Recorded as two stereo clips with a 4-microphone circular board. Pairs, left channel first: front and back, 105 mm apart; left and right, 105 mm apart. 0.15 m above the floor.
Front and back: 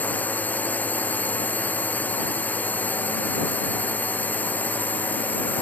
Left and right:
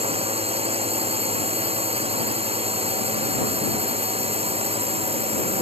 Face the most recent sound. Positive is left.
turn(degrees=-75)